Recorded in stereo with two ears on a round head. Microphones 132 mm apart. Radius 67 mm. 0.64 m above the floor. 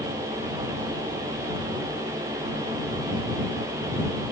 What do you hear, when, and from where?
Only background noise.